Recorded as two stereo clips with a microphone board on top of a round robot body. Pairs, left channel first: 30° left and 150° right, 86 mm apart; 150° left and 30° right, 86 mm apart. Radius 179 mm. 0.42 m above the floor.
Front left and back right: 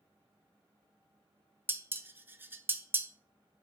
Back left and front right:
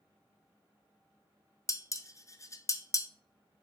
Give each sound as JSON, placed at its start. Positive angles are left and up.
{"t": 1.7, "sound": "dishes clattering", "azimuth_deg": 160, "distance_m": 0.6}